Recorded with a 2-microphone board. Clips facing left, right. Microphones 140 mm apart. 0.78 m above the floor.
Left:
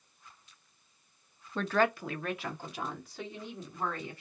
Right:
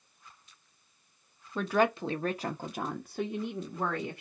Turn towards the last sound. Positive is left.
turn(degrees=-70)  # may be behind; listen again after turning